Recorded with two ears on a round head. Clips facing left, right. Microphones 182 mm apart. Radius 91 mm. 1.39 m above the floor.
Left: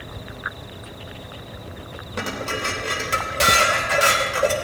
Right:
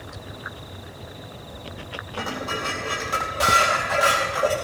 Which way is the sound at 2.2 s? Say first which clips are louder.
Left 2 dB; 35° left (ahead or behind).